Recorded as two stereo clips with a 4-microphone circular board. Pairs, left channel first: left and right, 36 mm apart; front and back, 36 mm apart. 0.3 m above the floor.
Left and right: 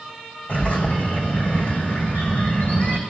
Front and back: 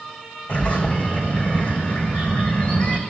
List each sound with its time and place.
0.5 s a bird: 50° left, 2.5 m